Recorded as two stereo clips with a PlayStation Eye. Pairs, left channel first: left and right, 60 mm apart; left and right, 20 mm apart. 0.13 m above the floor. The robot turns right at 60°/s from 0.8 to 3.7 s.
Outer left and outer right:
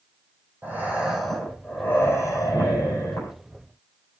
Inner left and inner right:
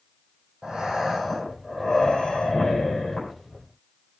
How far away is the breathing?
About 7 m.